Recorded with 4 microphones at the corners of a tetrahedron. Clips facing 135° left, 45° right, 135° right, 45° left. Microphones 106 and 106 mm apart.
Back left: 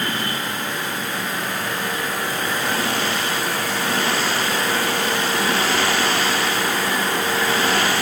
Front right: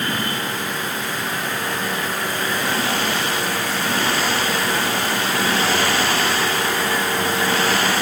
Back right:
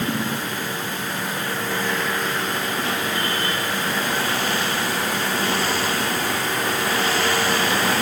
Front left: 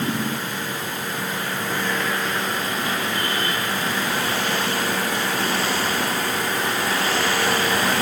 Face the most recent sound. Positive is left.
No sound to turn to.